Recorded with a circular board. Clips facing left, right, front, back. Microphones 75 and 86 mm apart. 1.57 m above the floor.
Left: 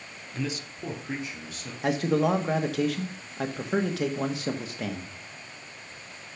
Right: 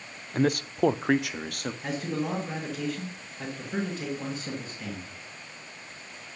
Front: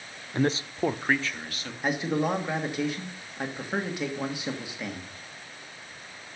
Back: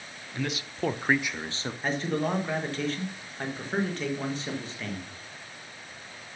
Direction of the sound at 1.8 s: 80° left.